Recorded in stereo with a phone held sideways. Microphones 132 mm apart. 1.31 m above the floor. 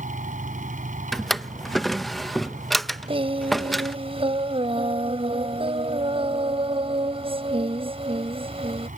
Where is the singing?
45° right (ahead or behind).